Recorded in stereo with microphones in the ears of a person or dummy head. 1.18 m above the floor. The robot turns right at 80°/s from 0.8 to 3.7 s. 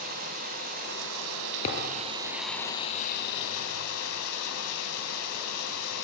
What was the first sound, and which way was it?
Running water, 130° right.